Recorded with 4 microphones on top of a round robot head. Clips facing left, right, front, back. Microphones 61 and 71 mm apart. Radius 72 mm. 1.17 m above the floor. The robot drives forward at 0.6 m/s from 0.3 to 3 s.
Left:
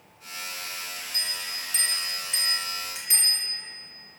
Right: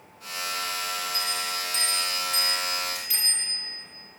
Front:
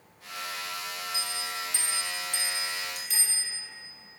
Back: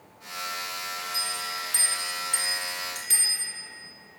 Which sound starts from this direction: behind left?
A bell, at 1.1 s.